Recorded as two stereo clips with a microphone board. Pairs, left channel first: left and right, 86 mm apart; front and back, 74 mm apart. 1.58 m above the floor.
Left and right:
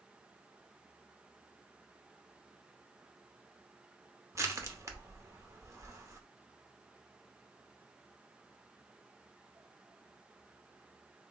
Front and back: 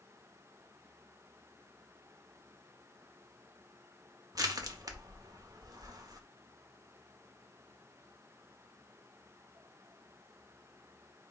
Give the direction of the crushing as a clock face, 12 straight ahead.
5 o'clock.